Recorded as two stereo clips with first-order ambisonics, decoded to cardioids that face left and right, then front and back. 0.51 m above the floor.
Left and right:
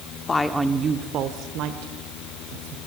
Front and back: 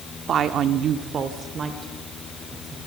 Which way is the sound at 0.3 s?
145° left.